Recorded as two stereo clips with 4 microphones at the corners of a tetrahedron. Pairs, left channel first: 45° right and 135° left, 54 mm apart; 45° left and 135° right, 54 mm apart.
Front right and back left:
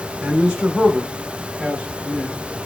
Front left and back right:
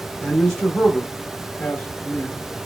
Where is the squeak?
No squeak in this recording.